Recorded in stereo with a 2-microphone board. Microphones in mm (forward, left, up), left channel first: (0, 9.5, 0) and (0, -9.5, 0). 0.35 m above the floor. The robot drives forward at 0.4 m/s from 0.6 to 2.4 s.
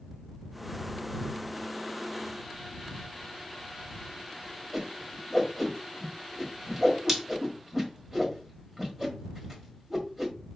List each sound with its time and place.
4.7 s a whoosh: 15° right (ahead or behind), 1.3 m